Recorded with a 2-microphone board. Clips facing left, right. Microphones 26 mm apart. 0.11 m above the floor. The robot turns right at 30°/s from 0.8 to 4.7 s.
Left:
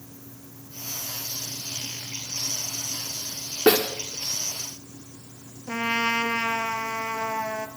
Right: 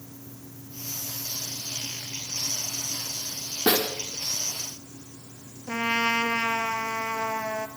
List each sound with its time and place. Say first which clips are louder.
3.7 s a snare drum: left 4 dB; 35° left (ahead or behind), 5.5 m; by 3.9 s 40° left (ahead or behind), 5.5 m
5.7 s a trumpet: even; centre (ahead or behind), 1.7 m